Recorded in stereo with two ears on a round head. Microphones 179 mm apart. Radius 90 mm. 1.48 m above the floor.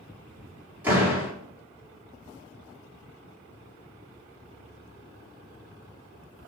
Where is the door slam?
10° right (ahead or behind), 2.5 m.